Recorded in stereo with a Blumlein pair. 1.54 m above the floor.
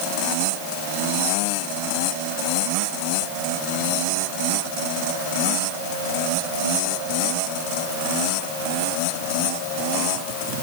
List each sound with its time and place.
Only background noise.